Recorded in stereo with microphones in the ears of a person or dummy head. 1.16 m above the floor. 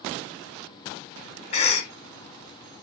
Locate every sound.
1.5 s a cough: 35° left (ahead or behind), 1.3 m